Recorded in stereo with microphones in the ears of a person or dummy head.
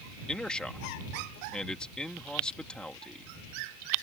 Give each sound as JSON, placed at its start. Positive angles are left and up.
{"t": 0.3, "sound": "a man speaking", "side_deg": 5}